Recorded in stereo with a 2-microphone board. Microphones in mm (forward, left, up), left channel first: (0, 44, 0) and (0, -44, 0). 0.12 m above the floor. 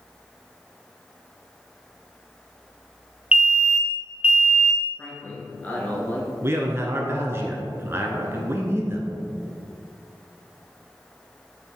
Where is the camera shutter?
No camera shutter in this recording.